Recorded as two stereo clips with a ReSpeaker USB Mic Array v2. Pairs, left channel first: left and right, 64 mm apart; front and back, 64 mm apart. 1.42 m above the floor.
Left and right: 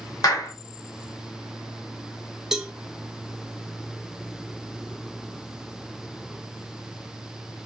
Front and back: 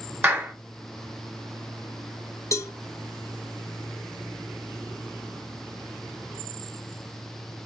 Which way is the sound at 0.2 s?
115° left.